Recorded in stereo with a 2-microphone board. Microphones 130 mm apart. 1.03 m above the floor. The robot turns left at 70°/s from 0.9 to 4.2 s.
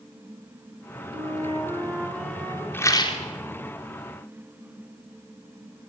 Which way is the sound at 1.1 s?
100° right.